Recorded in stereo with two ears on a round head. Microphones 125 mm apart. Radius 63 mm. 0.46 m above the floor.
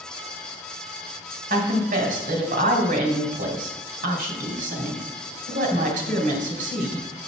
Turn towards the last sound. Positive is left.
turn(degrees=-60)  # may be behind; listen again after turning